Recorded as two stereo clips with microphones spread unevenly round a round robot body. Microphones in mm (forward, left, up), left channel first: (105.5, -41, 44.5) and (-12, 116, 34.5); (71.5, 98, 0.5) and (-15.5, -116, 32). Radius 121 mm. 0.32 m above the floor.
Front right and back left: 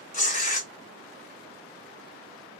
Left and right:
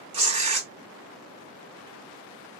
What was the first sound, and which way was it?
Tearing paper, 50° right.